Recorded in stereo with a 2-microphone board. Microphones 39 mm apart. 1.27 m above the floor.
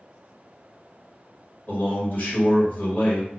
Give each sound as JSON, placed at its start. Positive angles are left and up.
{"t": 1.7, "sound": "a man speaking", "side_deg": 50, "distance_m": 1.5}